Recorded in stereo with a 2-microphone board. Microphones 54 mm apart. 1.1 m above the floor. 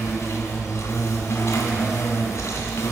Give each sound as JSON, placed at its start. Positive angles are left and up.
{"t": 0.0, "sound": "an insect", "side_deg": 60, "distance_m": 1.9}